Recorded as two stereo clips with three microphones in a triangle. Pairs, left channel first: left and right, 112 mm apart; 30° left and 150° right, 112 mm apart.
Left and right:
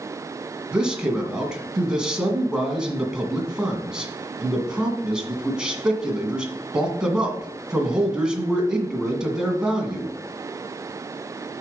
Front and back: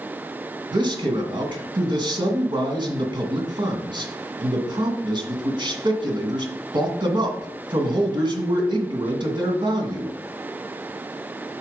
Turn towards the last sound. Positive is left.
turn(degrees=-170)